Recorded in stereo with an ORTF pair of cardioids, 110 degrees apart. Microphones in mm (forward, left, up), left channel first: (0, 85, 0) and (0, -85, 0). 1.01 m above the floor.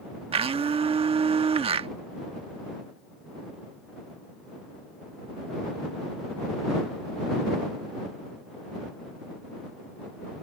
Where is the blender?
35° right.